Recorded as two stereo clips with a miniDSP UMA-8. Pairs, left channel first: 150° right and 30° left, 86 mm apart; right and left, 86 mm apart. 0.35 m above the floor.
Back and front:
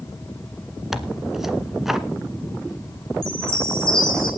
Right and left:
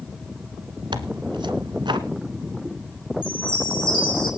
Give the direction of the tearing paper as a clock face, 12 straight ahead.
8 o'clock.